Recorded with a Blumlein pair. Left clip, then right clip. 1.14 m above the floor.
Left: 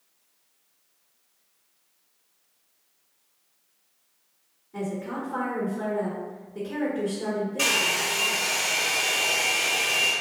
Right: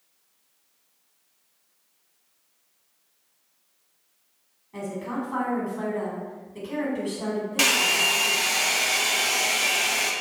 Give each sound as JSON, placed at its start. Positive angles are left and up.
{"t": 4.7, "sound": "a woman speaking", "azimuth_deg": -50, "distance_m": 1.5}
{"t": 7.6, "sound": "a hair dryer", "azimuth_deg": -45, "distance_m": 0.7}